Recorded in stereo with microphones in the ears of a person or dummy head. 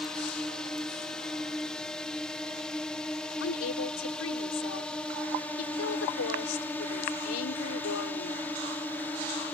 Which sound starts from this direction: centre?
A drone, at 0.0 s.